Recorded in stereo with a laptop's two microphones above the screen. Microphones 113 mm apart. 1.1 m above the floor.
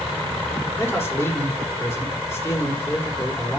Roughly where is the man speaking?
Left.